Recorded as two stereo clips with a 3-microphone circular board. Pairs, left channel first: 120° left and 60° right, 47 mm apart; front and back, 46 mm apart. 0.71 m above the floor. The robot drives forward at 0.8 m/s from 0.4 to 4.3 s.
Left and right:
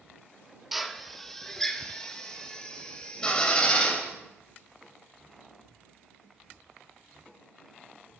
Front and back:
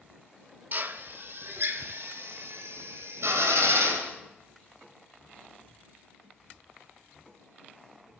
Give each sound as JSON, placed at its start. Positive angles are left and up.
{"t": 0.7, "sound": "a drill", "azimuth_deg": -145, "distance_m": 1.0}